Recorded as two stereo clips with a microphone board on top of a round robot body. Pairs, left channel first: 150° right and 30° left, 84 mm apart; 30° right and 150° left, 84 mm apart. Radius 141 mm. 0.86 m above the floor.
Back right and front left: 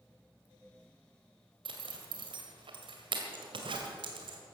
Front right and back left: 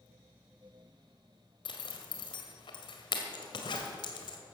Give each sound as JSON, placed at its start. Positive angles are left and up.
{"t": 1.6, "sound": "a zipper", "azimuth_deg": 5, "distance_m": 1.9}